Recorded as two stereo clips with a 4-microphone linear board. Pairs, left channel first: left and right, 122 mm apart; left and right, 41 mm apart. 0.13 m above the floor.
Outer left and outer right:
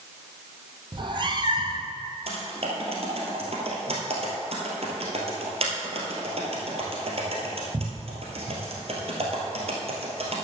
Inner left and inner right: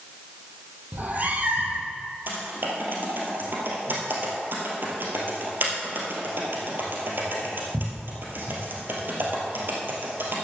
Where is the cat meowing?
45° right (ahead or behind), 1.1 m.